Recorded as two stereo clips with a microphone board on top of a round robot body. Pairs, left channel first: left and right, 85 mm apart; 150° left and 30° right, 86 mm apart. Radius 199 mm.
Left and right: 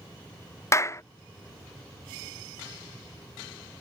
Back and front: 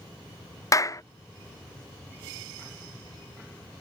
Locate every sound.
0.7 s a clap: 125° left